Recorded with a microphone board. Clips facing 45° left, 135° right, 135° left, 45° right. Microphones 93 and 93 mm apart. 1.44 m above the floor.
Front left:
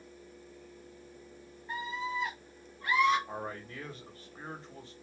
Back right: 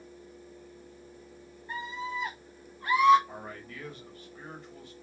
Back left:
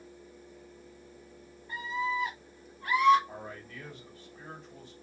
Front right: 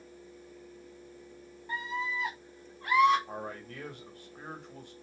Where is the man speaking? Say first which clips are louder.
Front left 3 dB, front right 3 dB; 15° right, 1.5 m.